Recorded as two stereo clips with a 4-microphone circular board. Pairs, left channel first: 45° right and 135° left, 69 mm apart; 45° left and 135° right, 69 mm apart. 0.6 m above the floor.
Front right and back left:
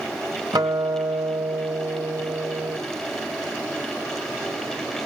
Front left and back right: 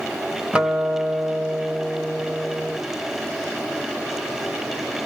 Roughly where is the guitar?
Behind left.